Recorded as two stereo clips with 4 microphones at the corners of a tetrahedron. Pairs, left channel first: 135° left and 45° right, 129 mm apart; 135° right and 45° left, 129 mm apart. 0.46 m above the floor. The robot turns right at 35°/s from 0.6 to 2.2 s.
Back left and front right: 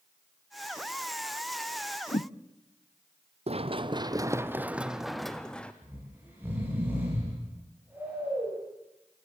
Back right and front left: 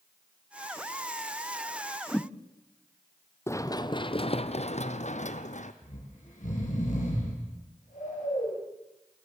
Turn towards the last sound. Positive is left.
turn(degrees=-120)